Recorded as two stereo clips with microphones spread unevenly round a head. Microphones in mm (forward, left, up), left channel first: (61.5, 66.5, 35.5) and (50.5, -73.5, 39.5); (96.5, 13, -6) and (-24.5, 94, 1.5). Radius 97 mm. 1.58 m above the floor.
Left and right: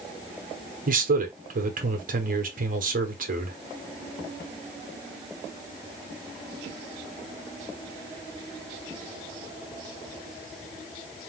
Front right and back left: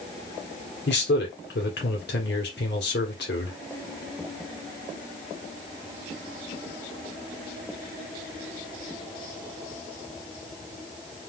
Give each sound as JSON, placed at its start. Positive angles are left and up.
{"t": 0.9, "sound": "a man speaking", "azimuth_deg": -70, "distance_m": 1.2}